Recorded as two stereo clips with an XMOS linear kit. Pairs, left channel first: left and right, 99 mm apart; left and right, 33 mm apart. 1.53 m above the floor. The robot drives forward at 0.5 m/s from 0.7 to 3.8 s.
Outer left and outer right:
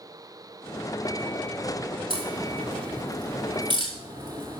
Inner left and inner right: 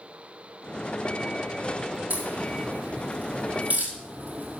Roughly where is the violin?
I don't hear a violin.